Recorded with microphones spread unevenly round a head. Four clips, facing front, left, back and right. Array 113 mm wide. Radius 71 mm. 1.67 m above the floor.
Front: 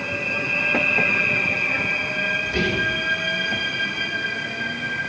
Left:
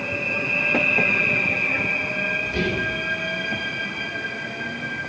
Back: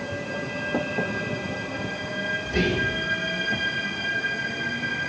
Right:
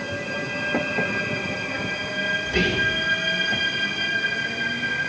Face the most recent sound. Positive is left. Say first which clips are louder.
# right 3 dB, back 1 dB
turn(degrees=-60)